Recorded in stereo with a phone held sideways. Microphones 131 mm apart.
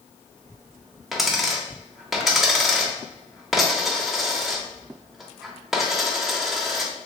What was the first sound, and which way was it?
A dropped coin, centre (ahead or behind).